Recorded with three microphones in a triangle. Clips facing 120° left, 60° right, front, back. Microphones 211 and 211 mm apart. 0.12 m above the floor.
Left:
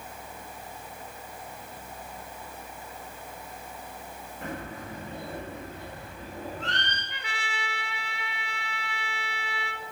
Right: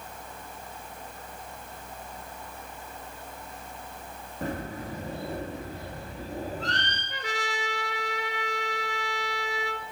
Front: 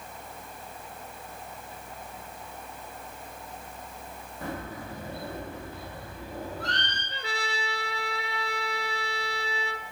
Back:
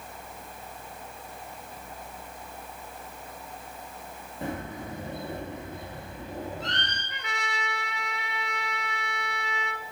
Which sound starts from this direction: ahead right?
A trumpet, at 7.1 s.